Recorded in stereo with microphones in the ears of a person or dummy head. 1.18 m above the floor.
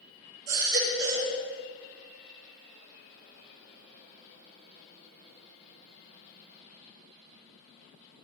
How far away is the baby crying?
About 4.5 m.